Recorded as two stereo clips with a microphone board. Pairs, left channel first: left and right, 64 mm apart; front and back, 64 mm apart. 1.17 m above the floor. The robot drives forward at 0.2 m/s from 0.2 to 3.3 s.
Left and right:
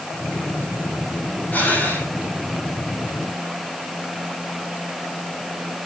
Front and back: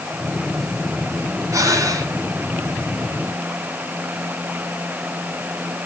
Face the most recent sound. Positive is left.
turn(degrees=155)